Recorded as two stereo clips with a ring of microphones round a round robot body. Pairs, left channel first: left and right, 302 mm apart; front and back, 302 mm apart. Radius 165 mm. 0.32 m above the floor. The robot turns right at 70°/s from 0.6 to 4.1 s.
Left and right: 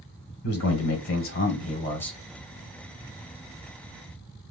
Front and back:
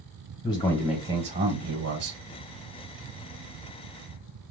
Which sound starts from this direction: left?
A man speaking, at 0.4 s.